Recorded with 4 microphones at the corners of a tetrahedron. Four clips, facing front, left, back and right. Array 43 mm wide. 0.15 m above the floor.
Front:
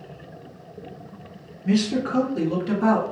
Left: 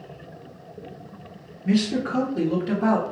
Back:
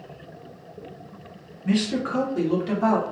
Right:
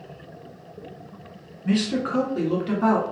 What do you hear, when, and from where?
1.6 s a man speaking: 120° right, 1.5 m; by 3.0 s 65° right, 1.3 m